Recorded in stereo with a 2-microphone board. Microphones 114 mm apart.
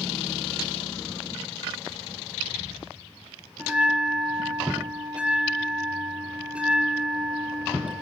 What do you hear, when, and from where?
3.6 s a bell: 10° right (ahead or behind), 4.5 m